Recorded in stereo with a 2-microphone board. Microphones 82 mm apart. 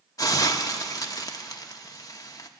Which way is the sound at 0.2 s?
45° left (ahead or behind).